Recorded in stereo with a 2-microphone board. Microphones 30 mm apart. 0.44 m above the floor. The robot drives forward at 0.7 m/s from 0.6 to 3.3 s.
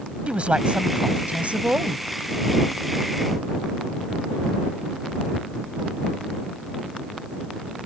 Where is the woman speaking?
45° right (ahead or behind); by 2.0 s 60° right (ahead or behind).